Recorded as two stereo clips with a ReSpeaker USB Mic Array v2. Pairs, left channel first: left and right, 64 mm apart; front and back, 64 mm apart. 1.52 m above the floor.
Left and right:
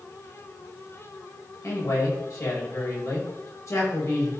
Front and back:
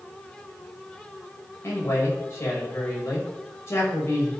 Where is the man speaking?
50° left, 6 m.